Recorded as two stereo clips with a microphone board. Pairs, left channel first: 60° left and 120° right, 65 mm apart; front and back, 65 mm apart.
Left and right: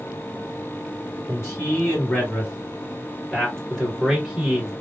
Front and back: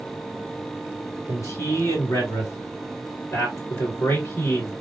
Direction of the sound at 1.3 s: 25° left.